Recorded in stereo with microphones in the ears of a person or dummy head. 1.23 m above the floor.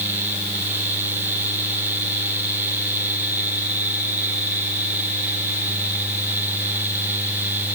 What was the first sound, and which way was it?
Only background noise.